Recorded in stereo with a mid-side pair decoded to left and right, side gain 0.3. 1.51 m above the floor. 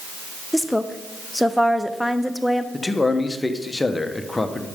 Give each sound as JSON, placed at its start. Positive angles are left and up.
{"t": 0.5, "sound": "a woman speaking", "azimuth_deg": 10, "distance_m": 0.9}
{"t": 2.7, "sound": "a man speaking", "azimuth_deg": 25, "distance_m": 1.2}